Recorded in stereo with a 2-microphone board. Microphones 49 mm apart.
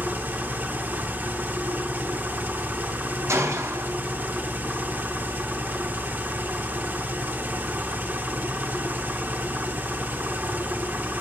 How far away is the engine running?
About 1.2 m.